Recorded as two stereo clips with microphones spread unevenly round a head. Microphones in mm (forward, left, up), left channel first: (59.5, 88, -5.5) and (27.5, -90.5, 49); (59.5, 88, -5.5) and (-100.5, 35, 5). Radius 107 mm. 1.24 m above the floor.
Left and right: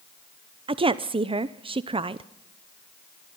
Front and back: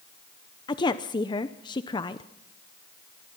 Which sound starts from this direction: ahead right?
A woman speaking, at 0.7 s.